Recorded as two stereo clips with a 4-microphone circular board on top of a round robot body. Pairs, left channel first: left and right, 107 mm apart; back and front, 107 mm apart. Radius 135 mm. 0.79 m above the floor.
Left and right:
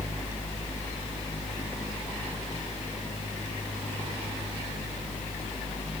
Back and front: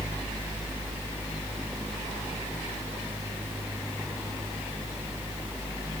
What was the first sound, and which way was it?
Only background noise.